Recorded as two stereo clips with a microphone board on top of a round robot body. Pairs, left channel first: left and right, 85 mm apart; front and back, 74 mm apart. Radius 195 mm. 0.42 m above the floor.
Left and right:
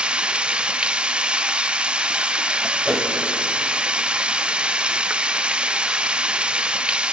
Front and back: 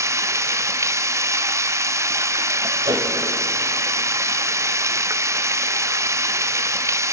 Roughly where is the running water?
Behind.